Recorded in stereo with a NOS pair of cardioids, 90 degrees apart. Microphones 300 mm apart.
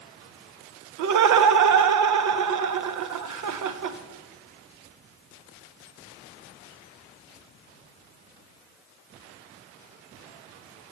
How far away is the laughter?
About 1.0 m.